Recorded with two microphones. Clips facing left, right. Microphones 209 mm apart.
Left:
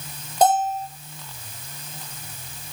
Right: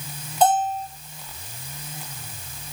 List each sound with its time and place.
0.4 s a bell: 45° left (ahead or behind), 4 m